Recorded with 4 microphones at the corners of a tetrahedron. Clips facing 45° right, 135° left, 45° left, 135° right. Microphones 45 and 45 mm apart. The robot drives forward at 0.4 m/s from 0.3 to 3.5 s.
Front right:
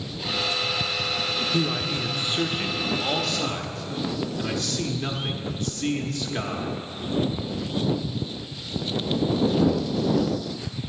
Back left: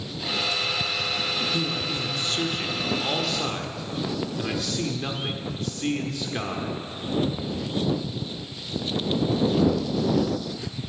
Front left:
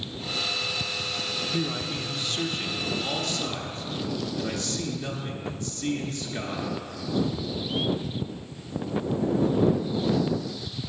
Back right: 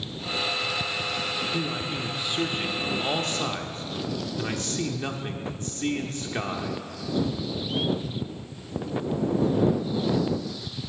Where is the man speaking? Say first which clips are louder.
Front right 2 dB, even; 40° right, 0.8 m; by 6.8 s 145° right, 0.9 m.